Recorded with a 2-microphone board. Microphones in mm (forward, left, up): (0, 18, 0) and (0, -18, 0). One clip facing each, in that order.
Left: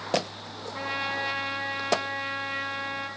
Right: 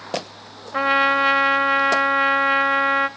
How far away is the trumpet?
About 1.0 m.